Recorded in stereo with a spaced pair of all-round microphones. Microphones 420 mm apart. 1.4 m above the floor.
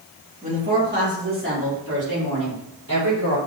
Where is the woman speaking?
15° right (ahead or behind), 2.5 m; by 3.4 s 40° right (ahead or behind), 5.5 m.